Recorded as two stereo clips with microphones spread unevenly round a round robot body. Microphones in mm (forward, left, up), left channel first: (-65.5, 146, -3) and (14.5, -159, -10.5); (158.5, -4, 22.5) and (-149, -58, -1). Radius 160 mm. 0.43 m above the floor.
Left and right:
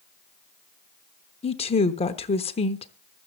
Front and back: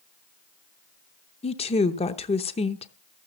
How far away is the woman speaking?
About 0.8 m.